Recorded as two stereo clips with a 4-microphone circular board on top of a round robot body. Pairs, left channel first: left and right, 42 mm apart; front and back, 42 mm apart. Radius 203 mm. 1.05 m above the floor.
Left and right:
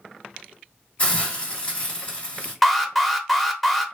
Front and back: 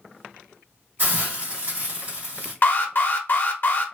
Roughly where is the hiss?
Behind left.